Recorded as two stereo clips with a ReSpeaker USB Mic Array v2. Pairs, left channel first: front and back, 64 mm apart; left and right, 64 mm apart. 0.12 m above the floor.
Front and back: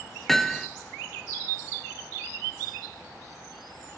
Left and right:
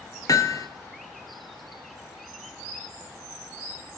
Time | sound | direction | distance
0.3 | hammering | 85° left | 0.7 m